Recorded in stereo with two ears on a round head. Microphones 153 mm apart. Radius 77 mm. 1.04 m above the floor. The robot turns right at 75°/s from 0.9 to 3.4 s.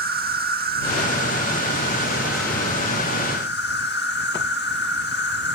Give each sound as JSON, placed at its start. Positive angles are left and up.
{"t": 0.0, "sound": "an insect", "azimuth_deg": -110}